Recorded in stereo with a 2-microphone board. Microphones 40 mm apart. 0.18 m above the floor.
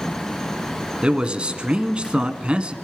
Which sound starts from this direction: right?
A man speaking, at 1.0 s.